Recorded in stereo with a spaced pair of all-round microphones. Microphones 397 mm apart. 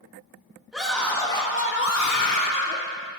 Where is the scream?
Centre (ahead or behind), 2 m; by 2.8 s 50° left (ahead or behind), 1.4 m.